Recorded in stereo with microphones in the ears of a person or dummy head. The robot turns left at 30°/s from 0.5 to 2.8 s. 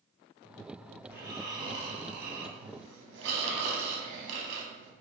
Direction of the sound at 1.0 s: 10° right.